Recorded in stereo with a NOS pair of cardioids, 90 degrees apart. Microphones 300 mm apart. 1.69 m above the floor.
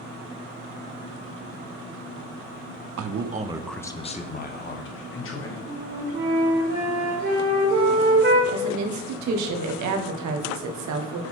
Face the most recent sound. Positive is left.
turn(degrees=-70)